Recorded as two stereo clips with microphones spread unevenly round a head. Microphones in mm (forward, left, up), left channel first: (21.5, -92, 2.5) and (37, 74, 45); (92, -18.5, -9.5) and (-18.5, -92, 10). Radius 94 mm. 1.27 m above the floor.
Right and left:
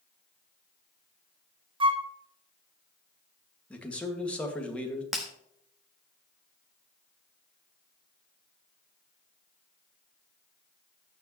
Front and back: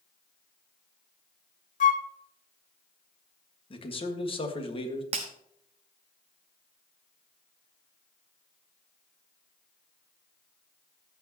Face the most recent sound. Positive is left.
turn(degrees=165)